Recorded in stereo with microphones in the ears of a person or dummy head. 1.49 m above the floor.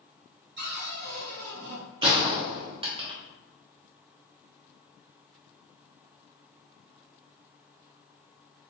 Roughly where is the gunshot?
Right.